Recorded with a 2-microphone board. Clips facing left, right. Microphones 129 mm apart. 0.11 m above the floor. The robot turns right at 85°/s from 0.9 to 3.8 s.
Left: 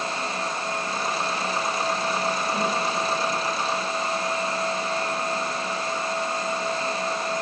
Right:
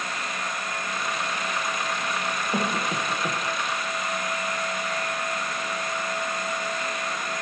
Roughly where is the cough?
Right.